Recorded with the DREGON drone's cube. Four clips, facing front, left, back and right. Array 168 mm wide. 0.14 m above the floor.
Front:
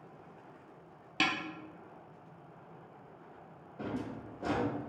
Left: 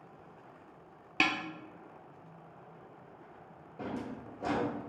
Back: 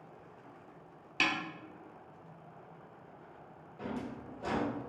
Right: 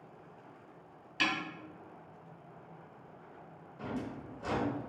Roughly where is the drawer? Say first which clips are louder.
Even, front 1 dB; ahead left.